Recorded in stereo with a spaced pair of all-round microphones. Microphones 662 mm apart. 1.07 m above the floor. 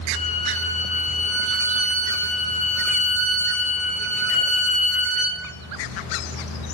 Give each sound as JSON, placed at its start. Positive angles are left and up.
{"t": 0.1, "sound": "a violin", "side_deg": 10, "distance_m": 1.0}